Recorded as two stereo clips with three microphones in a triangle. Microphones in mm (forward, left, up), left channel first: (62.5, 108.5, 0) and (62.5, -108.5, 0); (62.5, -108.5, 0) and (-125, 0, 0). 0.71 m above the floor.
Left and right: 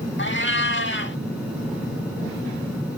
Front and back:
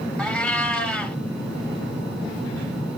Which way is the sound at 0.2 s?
55° left.